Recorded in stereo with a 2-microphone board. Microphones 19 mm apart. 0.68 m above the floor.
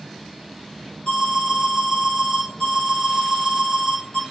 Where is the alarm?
45° left (ahead or behind), 2.5 m.